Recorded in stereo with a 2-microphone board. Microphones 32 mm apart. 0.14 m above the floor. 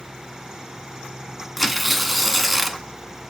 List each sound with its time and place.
1.6 s tearing paper: centre (ahead or behind), 0.6 m